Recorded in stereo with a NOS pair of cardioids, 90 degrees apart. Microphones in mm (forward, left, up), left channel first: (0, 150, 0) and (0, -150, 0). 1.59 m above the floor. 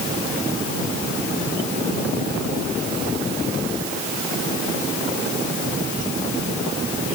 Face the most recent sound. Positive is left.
No sound to turn to.